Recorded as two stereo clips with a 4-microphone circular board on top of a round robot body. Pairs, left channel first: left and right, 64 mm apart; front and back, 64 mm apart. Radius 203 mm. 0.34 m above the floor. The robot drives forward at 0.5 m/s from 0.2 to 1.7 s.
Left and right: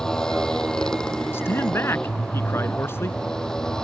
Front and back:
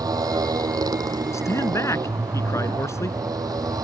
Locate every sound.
0.0 s a motorcycle: 170° left
1.3 s a man speaking: 40° left